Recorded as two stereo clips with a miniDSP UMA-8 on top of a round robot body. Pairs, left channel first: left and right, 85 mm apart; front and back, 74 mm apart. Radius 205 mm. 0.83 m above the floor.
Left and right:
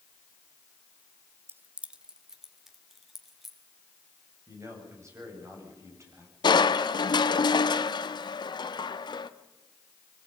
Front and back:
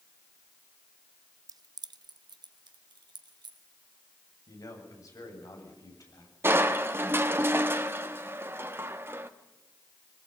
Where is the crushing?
120° left, 1.0 m.